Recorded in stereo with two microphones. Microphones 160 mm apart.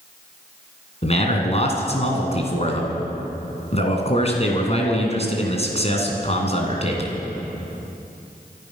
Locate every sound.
1.0 s a man speaking: 40° left (ahead or behind), 2.5 m